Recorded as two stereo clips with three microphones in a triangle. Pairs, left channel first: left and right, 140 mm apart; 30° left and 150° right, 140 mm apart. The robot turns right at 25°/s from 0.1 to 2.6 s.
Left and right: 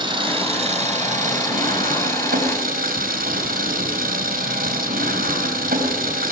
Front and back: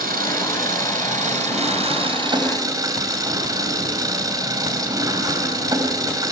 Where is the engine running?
145° right, 4 m; by 6.3 s 85° right, 4 m.